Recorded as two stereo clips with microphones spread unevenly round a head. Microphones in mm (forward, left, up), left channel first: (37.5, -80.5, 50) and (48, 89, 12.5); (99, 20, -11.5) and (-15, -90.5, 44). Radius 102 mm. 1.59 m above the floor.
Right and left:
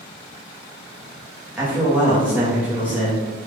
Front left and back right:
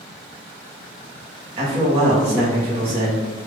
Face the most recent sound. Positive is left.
turn(degrees=175)